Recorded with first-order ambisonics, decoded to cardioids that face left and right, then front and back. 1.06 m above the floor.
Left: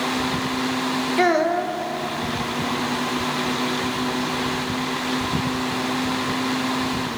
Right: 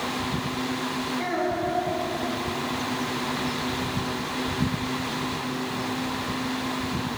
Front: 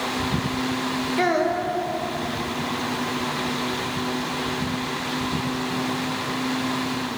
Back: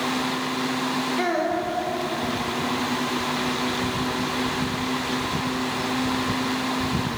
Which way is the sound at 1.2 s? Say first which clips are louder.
Left 9 dB, front 5 dB; 75° left.